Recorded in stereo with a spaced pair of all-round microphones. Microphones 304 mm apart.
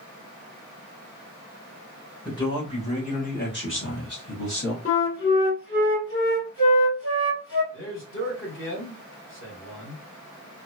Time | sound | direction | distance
2.2 | a man speaking | 10° left (ahead or behind) | 1.7 m
4.8 | a flute | 45° left (ahead or behind) | 1.7 m
7.7 | a man speaking | 40° left (ahead or behind) | 1.7 m